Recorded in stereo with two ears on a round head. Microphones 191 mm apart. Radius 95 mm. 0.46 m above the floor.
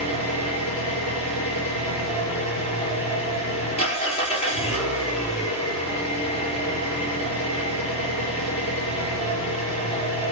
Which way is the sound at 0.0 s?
30° left (ahead or behind).